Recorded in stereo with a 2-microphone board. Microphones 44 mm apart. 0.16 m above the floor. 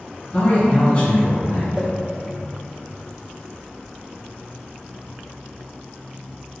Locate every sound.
0.3 s a man speaking: 30° left (ahead or behind), 1.2 m
1.7 s a whoosh: 20° right (ahead or behind), 1.3 m